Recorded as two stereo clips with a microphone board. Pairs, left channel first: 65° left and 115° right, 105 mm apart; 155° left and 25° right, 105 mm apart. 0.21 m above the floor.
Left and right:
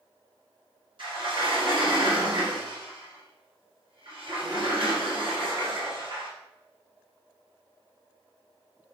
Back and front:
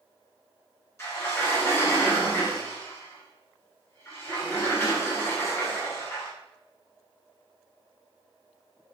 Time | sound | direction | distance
1.0 | a sliding door | 145° right | 2 m